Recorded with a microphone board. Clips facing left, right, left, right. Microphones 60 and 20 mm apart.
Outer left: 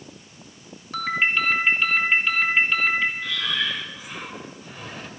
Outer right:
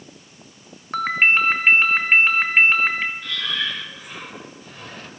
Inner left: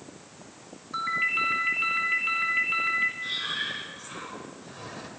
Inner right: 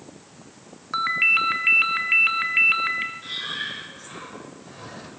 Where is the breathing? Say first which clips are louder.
Even, even; 5° left (ahead or behind), 1.9 m.